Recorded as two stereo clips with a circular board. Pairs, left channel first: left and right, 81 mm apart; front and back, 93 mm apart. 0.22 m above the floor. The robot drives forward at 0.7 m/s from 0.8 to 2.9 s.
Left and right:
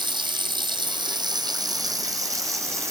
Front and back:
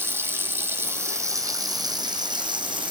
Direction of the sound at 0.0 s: 115° right.